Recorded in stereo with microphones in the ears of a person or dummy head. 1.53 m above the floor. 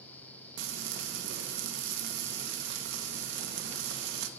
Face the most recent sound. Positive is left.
turn(degrees=-65)  # may be behind; listen again after turning